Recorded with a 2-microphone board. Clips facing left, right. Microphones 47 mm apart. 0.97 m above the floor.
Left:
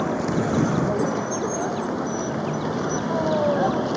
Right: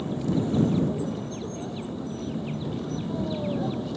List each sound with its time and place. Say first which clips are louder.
0.0 s a vehicle: left 4 dB; 80° left; by 4.0 s 75° left (ahead or behind)